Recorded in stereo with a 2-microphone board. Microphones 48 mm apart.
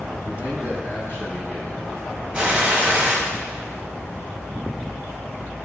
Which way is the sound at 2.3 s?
20° right (ahead or behind).